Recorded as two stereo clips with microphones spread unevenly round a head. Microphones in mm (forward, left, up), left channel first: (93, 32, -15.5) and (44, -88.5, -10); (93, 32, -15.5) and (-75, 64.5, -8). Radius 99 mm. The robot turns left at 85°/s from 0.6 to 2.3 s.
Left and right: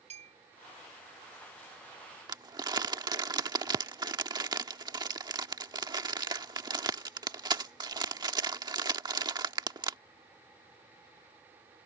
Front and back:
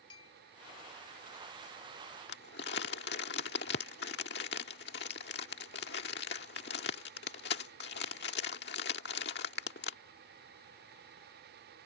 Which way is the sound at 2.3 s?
55° right.